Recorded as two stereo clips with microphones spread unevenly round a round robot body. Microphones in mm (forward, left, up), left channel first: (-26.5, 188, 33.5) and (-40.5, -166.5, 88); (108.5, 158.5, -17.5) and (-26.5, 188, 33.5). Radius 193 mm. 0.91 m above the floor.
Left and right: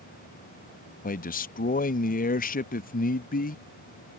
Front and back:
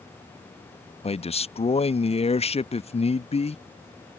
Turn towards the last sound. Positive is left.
turn(degrees=25)